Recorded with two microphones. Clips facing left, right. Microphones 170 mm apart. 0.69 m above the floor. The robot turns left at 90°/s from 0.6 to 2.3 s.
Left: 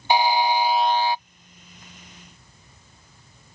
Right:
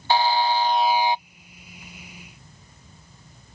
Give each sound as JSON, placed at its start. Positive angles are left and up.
{"t": 0.1, "sound": "a buzzer", "azimuth_deg": 20}